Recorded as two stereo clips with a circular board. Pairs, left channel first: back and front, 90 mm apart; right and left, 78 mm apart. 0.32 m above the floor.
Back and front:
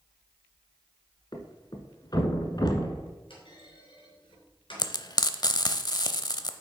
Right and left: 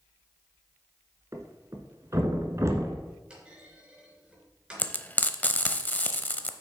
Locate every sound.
1.3 s a thud: 140° left, 1.3 m
3.3 s a clunk: 170° left, 3.5 m
4.8 s frying: 155° right, 0.6 m